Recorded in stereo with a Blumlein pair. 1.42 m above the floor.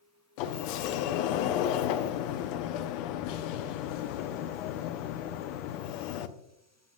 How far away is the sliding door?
About 0.6 m.